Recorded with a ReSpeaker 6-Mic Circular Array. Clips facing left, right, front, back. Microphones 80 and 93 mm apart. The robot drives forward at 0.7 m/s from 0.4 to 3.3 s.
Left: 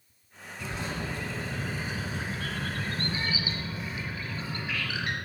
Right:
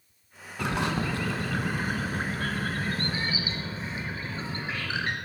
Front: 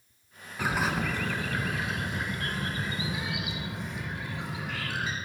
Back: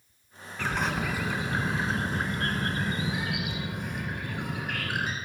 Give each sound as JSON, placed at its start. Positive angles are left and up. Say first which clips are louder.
{"t": 0.6, "sound": "a bird", "louder": "right 7 dB, front 1 dB", "azimuth_deg": -75, "distance_m": 1.1}